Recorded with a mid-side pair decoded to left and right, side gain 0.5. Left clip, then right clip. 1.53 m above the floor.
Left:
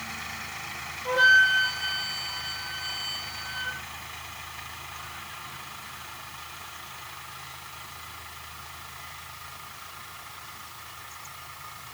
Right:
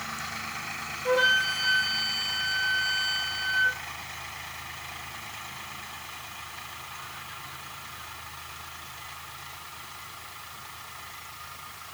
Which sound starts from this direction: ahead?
A flute, at 1.1 s.